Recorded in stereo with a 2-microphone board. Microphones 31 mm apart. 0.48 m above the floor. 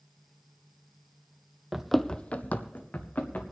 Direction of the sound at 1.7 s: 15° right (ahead or behind).